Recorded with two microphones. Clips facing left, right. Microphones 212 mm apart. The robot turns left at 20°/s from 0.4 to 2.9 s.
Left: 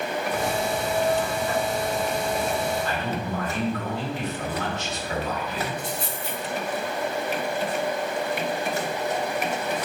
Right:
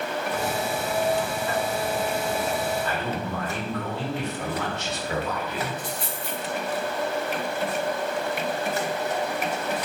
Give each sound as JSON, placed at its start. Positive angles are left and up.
{"t": 2.8, "sound": "a man speaking", "side_deg": -60, "distance_m": 1.4}
{"t": 5.8, "sound": "a dropped coin", "side_deg": 0, "distance_m": 1.4}